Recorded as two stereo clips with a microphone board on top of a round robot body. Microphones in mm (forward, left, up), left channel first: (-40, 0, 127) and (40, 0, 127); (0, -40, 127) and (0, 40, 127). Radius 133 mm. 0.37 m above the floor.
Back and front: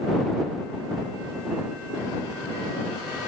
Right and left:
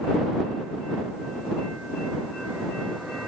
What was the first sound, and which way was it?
Only background noise.